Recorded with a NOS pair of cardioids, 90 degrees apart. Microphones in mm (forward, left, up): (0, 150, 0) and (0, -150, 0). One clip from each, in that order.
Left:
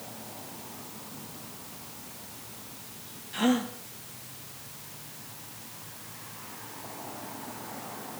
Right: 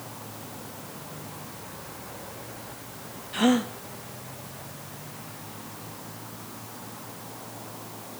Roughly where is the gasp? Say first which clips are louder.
Right 4 dB; ahead right.